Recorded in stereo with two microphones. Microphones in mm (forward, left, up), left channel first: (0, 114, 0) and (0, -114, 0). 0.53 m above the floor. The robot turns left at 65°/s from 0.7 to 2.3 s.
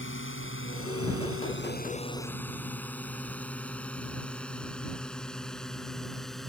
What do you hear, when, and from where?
0.0 s a drone: 60° left (ahead or behind); by 6.5 s centre (ahead or behind)